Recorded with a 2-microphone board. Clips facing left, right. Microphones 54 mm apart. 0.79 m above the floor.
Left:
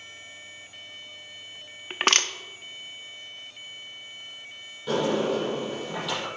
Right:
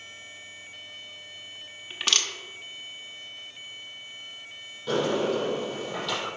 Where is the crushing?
50° left (ahead or behind), 0.6 m.